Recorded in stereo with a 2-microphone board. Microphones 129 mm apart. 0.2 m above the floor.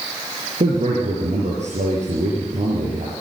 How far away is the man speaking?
About 5.5 m.